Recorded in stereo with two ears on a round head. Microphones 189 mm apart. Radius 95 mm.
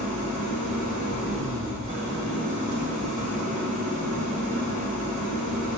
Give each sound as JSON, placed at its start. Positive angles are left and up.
{"t": 0.0, "sound": "an engine running", "side_deg": -35, "distance_m": 1.7}